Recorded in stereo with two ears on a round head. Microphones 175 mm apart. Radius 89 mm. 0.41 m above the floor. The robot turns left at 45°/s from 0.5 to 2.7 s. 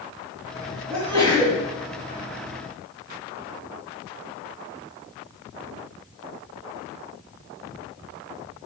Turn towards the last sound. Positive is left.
turn(degrees=135)